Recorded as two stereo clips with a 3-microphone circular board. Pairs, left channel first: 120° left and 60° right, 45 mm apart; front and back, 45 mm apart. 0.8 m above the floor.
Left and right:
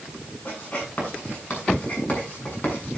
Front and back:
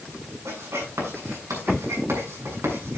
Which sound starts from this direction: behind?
Writing, at 0.5 s.